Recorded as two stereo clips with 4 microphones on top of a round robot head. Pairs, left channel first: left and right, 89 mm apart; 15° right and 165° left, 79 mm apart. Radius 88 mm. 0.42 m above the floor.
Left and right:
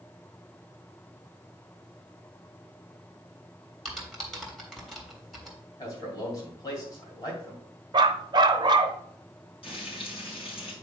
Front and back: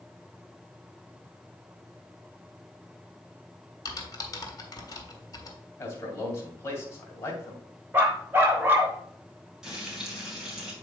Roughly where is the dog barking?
Behind right.